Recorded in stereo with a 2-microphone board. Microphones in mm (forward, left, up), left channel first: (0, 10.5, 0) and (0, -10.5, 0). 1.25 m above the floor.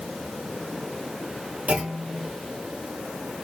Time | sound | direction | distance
1.7 | a clunk | 70° right (ahead or behind) | 0.9 m